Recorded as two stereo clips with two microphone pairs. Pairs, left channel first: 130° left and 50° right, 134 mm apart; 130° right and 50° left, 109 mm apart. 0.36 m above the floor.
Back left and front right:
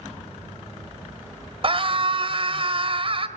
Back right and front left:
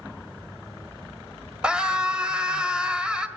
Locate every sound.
1.6 s a scream: 30° right, 1.5 m